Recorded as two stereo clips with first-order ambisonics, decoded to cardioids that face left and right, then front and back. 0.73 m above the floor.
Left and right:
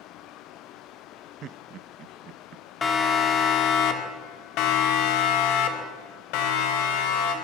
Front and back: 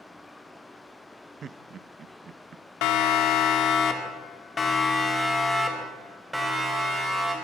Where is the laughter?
125° right, 0.7 m.